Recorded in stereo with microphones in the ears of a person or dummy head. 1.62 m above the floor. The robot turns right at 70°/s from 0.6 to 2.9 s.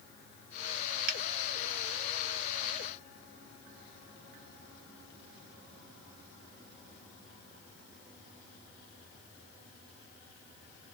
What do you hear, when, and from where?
1.1 s a finger snap: 55° right (ahead or behind), 0.8 m; by 1.2 s 50° right (ahead or behind), 0.8 m